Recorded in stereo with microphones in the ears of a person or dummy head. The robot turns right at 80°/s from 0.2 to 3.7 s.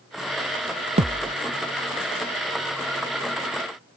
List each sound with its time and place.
1.0 s a thud: 140° right; by 1.4 s 110° right